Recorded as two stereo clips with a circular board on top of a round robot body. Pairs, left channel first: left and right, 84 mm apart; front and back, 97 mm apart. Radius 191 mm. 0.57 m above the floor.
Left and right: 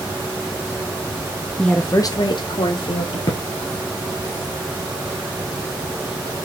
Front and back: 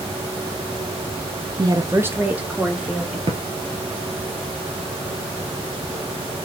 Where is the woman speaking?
170° left, 0.8 m; by 3.2 s 95° left, 2 m.